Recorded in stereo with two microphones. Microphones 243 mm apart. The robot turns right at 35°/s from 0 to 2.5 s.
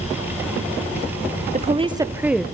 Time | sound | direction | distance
1.5 | a woman speaking | 30° right | 0.7 m